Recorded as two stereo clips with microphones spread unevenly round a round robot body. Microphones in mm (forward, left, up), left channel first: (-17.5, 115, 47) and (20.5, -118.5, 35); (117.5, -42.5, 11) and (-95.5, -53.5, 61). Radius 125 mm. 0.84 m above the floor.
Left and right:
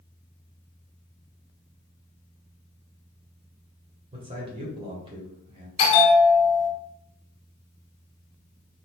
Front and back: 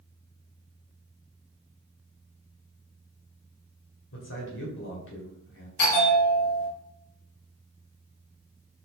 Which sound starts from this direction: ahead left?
A bell, at 5.8 s.